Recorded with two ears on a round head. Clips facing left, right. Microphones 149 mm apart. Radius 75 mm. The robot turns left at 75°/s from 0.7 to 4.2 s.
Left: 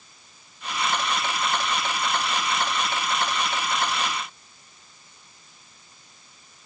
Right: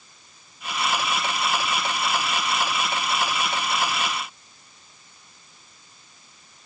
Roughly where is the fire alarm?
No fire alarm in this recording.